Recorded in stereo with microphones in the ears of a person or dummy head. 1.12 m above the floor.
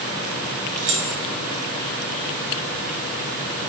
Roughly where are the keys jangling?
Right.